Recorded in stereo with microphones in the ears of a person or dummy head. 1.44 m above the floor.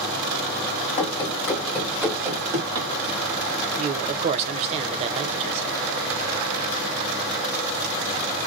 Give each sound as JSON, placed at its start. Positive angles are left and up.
{"t": 1.0, "sound": "running footsteps", "side_deg": 30, "distance_m": 1.6}
{"t": 3.8, "sound": "a man speaking", "side_deg": -40, "distance_m": 0.7}